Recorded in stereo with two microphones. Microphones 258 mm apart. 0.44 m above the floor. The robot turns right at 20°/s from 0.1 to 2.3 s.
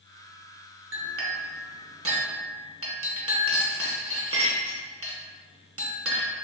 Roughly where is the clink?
Right.